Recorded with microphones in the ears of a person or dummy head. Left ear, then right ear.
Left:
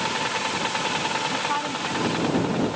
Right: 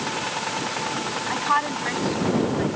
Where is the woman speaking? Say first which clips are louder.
Right 3 dB; 55° right (ahead or behind).